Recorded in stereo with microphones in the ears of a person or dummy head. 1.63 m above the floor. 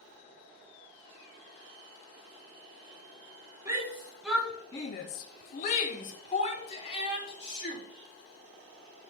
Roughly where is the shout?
Centre.